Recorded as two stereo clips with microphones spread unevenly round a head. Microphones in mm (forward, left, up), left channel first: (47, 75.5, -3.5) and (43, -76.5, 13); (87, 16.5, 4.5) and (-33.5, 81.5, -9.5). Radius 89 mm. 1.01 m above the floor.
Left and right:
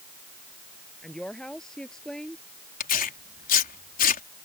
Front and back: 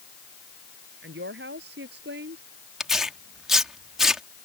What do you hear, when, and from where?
1.0 s a woman speaking: 175° left
2.8 s tearing paper: 65° left